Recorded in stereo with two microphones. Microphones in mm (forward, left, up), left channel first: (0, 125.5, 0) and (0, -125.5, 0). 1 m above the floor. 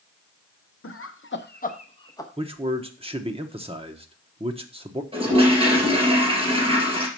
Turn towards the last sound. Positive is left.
turn(degrees=-20)  # may be behind; listen again after turning